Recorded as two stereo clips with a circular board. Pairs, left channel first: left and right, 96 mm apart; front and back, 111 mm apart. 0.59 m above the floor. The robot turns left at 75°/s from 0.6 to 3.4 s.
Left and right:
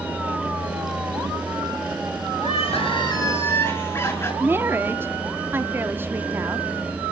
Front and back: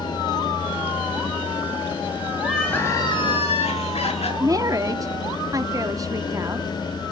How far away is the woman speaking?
About 0.9 m.